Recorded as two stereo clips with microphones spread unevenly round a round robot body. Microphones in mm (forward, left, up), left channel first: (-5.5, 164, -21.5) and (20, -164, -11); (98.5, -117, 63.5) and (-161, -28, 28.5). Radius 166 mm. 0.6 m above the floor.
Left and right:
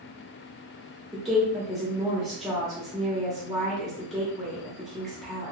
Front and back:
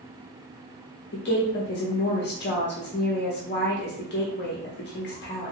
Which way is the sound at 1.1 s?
10° left.